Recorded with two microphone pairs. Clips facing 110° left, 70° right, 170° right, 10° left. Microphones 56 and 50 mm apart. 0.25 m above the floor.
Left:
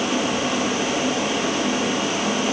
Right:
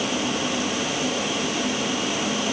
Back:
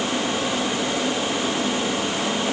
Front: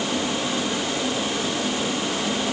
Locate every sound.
Only background noise.